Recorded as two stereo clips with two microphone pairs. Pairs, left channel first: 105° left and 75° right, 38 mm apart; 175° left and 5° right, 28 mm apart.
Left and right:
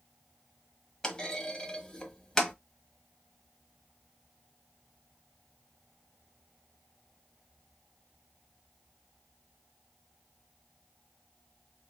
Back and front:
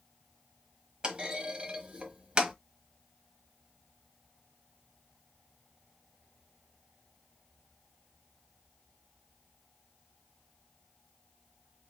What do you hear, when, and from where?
1.0 s a clunk: 40° left, 1.2 m